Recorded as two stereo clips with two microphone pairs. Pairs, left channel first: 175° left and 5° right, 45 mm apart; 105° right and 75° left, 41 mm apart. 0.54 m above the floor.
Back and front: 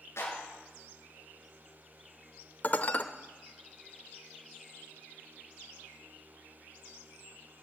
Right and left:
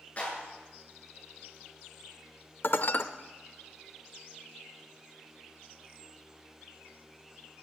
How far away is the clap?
About 8.5 m.